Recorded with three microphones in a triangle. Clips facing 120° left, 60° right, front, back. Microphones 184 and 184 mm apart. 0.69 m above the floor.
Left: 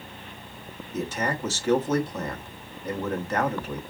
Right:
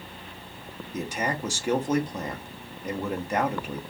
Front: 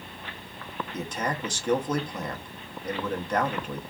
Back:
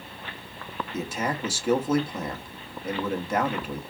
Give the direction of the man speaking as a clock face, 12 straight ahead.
4 o'clock.